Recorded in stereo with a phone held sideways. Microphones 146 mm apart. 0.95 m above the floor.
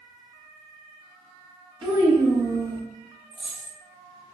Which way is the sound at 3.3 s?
35° left (ahead or behind).